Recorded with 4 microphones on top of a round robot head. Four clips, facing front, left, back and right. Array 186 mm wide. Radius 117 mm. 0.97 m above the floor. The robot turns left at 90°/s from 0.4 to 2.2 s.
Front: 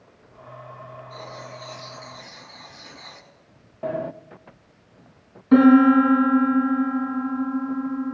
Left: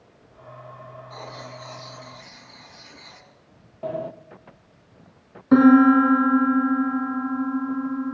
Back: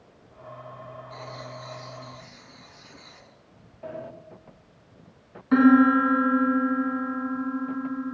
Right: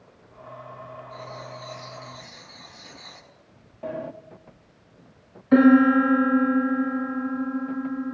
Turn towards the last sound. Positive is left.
turn(degrees=60)